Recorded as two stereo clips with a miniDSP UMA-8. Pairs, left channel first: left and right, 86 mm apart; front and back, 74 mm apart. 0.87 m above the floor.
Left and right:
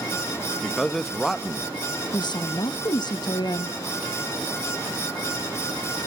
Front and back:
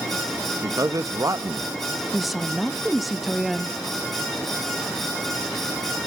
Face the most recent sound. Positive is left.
turn(degrees=90)